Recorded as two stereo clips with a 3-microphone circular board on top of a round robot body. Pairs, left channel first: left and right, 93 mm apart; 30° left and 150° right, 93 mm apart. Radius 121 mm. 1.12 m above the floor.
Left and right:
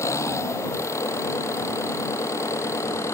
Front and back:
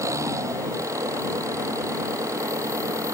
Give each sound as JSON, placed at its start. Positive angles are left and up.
{"t": 0.0, "sound": "an engine running", "azimuth_deg": 150}